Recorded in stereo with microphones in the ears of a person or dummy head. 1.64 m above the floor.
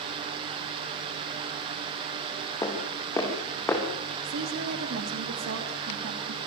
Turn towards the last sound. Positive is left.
turn(degrees=-60)  # may be behind; listen again after turning